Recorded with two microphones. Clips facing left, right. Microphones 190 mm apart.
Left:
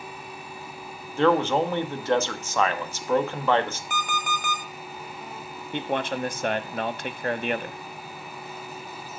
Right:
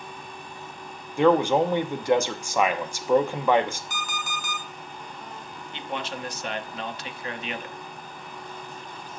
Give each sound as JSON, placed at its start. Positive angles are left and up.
{"t": 1.2, "sound": "a man speaking", "side_deg": -15, "distance_m": 0.9}
{"t": 3.9, "sound": "an alarm clock", "side_deg": 55, "distance_m": 1.5}
{"t": 5.7, "sound": "a man speaking", "side_deg": 50, "distance_m": 0.7}